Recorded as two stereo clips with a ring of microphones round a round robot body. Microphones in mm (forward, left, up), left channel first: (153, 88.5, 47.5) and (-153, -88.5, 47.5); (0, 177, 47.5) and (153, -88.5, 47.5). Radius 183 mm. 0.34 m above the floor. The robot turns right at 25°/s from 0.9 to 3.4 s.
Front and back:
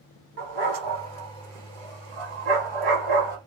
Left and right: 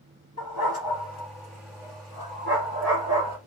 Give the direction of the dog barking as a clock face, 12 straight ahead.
6 o'clock.